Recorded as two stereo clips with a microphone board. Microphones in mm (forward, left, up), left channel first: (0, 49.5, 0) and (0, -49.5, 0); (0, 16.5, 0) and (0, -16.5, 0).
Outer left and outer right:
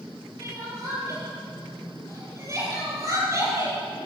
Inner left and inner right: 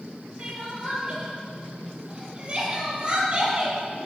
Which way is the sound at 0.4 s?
30° right (ahead or behind).